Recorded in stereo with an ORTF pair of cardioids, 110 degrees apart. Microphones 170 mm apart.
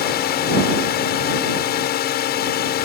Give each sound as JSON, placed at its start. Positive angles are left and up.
{"t": 0.0, "sound": "a drone", "azimuth_deg": 65}